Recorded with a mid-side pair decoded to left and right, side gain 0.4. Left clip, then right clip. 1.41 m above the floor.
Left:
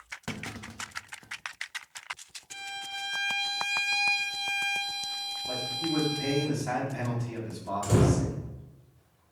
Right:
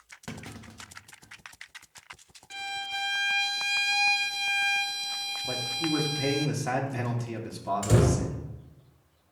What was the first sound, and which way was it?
A clunk, 20° left.